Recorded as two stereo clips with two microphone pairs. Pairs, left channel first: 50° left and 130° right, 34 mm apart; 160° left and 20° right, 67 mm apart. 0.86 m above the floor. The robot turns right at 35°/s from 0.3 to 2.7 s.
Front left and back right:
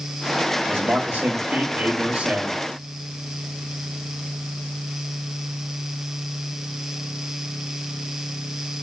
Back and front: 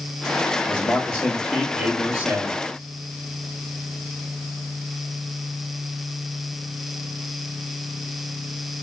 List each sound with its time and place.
0.7 s a man speaking: 145° right, 1.6 m; by 2.6 s 75° right, 1.6 m